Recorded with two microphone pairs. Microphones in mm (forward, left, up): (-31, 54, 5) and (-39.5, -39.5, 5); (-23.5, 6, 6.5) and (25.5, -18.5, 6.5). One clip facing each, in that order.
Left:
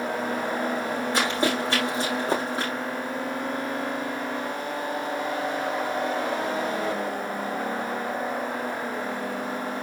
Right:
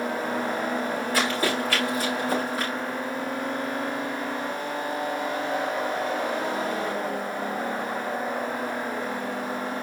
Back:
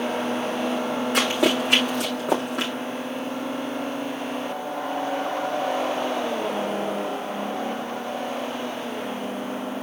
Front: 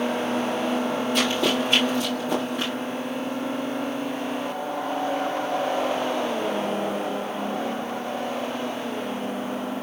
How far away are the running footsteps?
About 6.5 m.